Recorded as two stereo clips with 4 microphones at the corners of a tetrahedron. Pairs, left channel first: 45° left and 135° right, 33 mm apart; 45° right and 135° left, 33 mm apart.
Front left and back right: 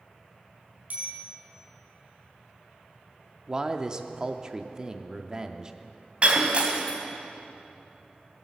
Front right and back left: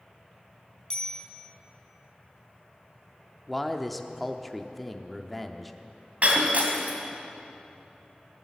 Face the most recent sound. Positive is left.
turn(degrees=170)